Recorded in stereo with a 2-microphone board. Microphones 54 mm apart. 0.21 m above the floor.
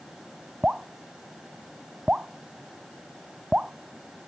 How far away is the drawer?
No drawer in this recording.